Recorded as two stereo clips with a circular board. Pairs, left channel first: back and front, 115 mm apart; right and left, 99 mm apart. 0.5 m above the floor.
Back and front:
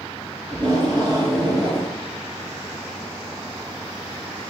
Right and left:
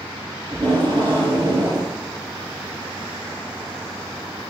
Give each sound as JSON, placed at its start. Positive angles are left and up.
{"t": 0.5, "sound": "tape being pulled", "azimuth_deg": 55, "distance_m": 2.0}